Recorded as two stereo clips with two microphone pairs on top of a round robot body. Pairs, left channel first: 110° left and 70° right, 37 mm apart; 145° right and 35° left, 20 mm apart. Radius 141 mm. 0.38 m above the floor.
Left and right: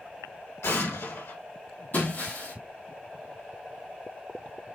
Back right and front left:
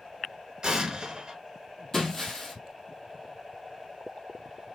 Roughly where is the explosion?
Left.